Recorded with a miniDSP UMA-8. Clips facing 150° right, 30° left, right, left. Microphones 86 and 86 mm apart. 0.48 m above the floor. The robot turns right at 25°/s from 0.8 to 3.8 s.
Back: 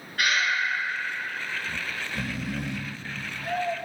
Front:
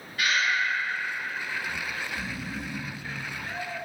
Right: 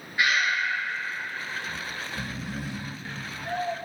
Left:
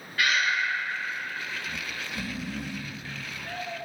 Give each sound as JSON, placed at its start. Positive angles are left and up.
{"t": 0.2, "sound": "breathing", "azimuth_deg": -155, "distance_m": 2.5}
{"t": 1.7, "sound": "snoring", "azimuth_deg": 160, "distance_m": 0.7}